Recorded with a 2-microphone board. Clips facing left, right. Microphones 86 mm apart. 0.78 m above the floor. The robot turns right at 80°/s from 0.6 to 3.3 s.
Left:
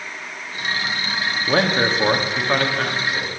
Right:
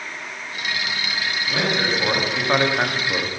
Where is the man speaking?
105° left, 1.6 m; by 3.3 s 110° right, 1.6 m.